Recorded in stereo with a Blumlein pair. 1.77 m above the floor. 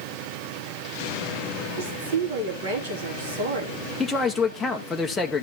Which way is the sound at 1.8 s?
65° right.